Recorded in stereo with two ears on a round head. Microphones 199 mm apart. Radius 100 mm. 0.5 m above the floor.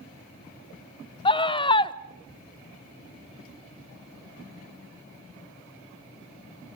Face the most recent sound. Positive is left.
turn(degrees=20)  # may be behind; listen again after turning